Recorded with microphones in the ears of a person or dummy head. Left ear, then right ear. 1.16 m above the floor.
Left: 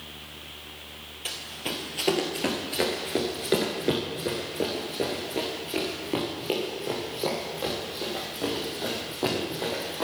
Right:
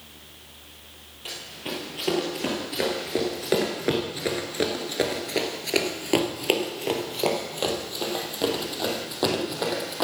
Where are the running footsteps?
15° left (ahead or behind), 2.0 m; by 10.1 s 35° right (ahead or behind), 3.5 m.